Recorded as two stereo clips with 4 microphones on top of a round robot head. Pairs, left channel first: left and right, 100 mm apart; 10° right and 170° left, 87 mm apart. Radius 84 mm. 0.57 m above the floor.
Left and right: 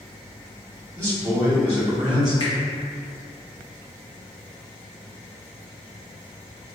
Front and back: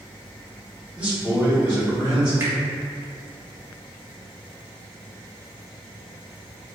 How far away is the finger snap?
About 1.6 m.